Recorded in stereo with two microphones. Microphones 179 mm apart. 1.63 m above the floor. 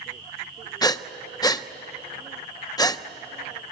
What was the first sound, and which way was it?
Breathing, 20° left (ahead or behind).